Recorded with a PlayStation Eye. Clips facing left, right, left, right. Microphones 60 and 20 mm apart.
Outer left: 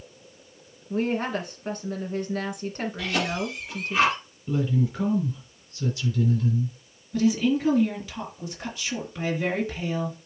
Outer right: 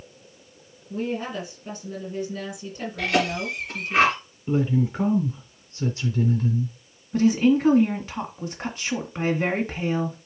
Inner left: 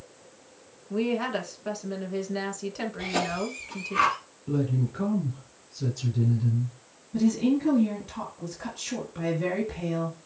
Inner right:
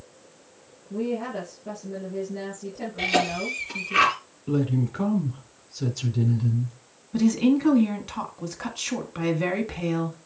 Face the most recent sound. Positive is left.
turn(degrees=-45)  # may be behind; listen again after turning